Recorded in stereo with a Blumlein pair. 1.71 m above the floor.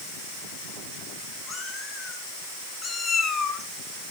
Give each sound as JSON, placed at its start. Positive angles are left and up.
{"t": 1.5, "sound": "a cat meowing", "azimuth_deg": 20, "distance_m": 6.5}